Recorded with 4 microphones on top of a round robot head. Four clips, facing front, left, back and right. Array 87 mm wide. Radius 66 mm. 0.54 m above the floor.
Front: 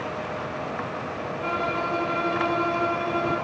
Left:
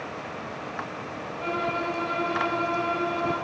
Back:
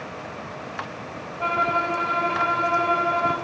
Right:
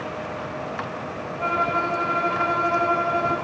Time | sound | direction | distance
1.4 | a violin | 145° right | 2.5 m